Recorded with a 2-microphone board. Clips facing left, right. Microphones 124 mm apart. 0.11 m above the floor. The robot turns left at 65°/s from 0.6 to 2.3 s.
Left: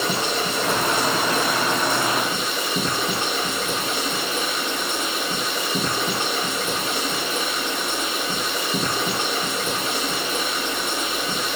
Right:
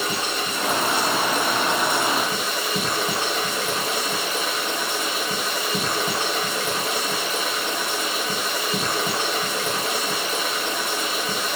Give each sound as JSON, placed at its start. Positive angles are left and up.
{"t": 0.0, "sound": "running water", "azimuth_deg": 75, "distance_m": 1.9}